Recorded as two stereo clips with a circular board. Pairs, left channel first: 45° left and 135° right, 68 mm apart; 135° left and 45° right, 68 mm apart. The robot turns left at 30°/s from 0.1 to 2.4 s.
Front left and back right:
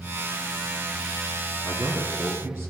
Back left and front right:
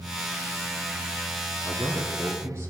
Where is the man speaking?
65° right, 2.0 m; by 2.7 s 85° right, 2.0 m.